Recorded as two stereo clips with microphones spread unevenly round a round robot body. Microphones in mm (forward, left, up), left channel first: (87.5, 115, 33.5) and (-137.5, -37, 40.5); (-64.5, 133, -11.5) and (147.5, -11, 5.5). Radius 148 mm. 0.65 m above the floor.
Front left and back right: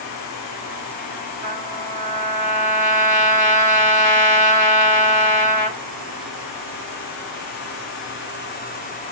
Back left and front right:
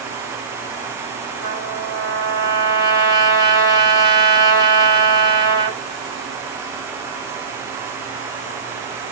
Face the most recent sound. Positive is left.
turn(degrees=165)